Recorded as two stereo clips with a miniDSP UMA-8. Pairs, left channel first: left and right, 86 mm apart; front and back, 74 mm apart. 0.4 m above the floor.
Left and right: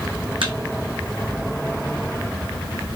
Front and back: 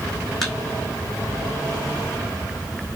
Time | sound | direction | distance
0.4 | a thud | 85° right | 2 m